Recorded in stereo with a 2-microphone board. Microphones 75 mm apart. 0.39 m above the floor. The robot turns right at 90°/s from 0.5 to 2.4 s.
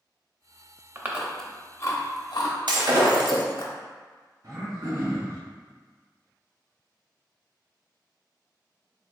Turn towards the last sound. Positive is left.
turn(degrees=-65)  # may be behind; listen again after turning